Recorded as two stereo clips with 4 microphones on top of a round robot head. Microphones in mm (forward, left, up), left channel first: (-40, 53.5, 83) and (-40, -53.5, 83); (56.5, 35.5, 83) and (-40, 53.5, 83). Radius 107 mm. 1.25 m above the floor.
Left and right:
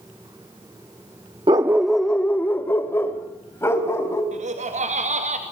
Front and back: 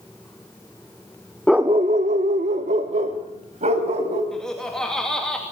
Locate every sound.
1.5 s a dog barking: 90° right, 0.7 m; by 4.2 s 155° left, 4 m
4.3 s laughter: 95° right, 2.5 m